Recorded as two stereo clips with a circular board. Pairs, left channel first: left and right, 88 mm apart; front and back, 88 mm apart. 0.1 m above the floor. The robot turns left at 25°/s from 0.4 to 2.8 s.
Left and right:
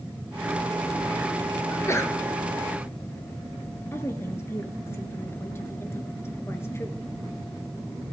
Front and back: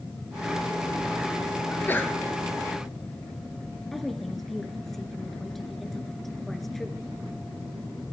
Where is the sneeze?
60° left, 1.6 m; by 2.1 s 50° left, 1.6 m.